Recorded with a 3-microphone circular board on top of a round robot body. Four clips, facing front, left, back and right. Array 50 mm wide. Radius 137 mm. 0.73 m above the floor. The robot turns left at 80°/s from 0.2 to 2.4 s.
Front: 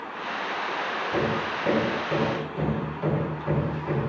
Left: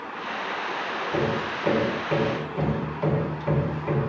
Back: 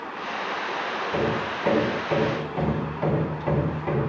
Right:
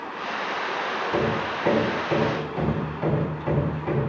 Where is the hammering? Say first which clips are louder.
Even, back 1 dB; 50° right, 6.5 m; by 4.0 s 155° right, 6.5 m.